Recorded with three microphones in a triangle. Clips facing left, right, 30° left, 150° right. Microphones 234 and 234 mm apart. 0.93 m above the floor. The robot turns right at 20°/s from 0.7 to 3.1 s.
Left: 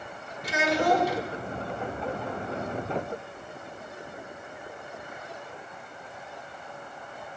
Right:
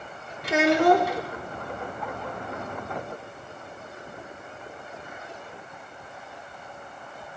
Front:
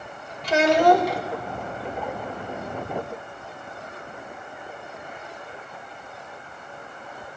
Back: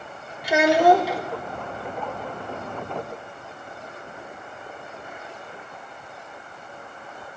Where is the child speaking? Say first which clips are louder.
Right 6 dB, back 1 dB; 70° right, 1.2 m; by 1.2 s 60° right, 1.2 m.